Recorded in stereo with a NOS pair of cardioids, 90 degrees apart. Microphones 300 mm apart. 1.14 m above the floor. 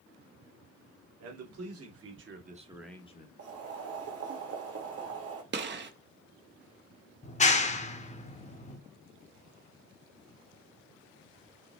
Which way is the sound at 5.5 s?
35° right.